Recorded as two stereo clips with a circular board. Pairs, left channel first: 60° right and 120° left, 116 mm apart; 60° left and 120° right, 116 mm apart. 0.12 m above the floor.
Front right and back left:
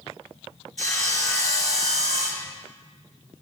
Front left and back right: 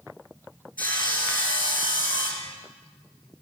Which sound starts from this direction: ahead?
Sawing, at 0.8 s.